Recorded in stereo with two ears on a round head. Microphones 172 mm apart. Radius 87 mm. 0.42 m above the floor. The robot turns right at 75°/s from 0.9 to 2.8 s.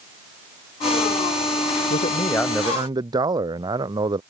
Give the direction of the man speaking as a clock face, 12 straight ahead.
8 o'clock.